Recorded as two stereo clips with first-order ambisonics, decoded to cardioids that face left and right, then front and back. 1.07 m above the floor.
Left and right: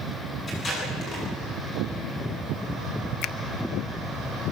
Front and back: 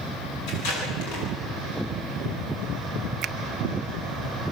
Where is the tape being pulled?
20° left, 10 m.